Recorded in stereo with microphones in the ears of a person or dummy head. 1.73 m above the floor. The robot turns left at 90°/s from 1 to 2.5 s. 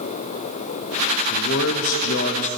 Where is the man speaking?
145° left, 0.6 m; by 2.5 s 40° left, 0.6 m.